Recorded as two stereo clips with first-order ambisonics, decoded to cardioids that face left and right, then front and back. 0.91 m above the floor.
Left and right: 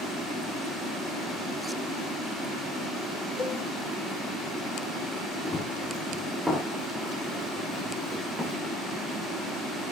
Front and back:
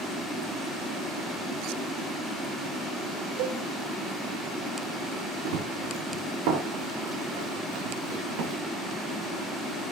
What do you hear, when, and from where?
3.4 s a cowbell: 165° left, 4 m
5.5 s running footsteps: 175° left, 4.5 m; by 8.6 s 170° right, 6 m